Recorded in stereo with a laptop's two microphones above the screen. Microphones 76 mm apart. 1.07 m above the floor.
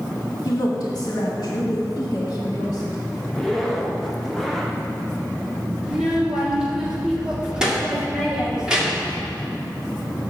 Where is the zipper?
5° left (ahead or behind), 0.9 m.